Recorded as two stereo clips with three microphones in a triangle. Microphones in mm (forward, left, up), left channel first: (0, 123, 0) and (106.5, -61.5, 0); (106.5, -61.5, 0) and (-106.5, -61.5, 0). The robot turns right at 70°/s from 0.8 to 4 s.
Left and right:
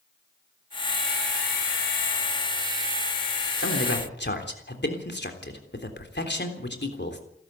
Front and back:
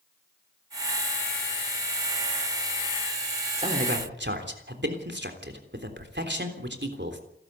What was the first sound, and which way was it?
A man speaking, 120° left.